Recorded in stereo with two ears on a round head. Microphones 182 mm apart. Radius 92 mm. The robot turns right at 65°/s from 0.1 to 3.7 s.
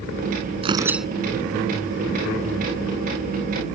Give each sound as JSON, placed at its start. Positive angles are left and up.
{"t": 0.6, "sound": "tearing paper", "side_deg": -30}